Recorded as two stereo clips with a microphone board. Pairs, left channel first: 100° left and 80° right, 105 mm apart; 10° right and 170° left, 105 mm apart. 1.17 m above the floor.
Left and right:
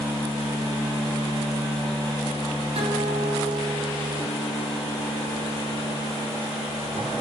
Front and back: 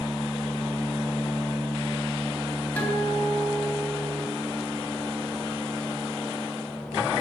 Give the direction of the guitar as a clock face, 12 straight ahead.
3 o'clock.